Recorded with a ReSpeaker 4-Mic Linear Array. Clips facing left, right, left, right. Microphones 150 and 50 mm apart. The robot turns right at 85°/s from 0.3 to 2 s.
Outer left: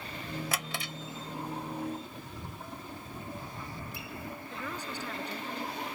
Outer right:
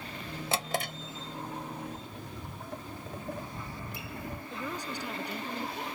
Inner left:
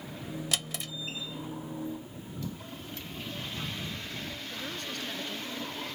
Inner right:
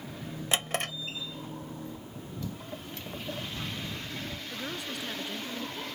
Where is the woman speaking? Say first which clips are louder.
Outer right 3 dB, inner right 2 dB; 10° right (ahead or behind).